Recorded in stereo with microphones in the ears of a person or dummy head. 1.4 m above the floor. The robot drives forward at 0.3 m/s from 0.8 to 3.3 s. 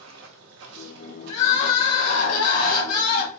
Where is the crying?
40° left (ahead or behind), 1.8 m; by 3.3 s 55° left (ahead or behind), 1.4 m.